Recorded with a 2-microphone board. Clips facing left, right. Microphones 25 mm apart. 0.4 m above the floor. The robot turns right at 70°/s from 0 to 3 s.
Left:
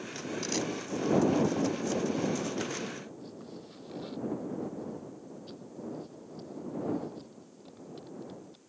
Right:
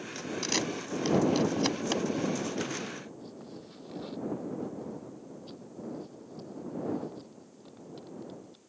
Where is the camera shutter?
25° right (ahead or behind); by 2.0 s 40° right (ahead or behind).